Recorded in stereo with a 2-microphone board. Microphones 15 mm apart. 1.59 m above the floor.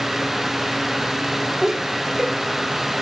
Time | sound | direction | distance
1.6 | laughter | 40° right (ahead or behind) | 5 m